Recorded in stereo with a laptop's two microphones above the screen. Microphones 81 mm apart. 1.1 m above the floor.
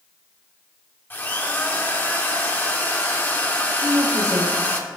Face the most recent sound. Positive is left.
turn(degrees=-50)  # may be behind; listen again after turning